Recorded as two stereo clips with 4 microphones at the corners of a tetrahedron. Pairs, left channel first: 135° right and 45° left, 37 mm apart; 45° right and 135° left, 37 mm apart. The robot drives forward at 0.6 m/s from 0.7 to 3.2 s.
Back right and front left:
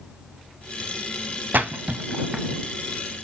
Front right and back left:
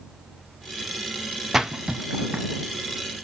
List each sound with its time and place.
1.5 s a splash: 55° left, 0.7 m; by 2.5 s 110° left, 0.6 m